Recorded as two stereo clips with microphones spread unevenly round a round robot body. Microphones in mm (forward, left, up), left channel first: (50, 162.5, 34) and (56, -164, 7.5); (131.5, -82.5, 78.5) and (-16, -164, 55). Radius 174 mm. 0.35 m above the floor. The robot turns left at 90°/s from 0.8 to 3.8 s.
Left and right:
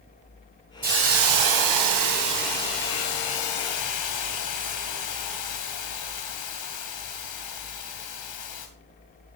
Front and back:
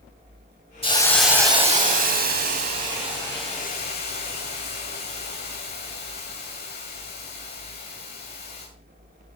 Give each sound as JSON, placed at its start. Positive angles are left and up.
{"t": 0.8, "sound": "a hiss", "azimuth_deg": -30, "distance_m": 2.5}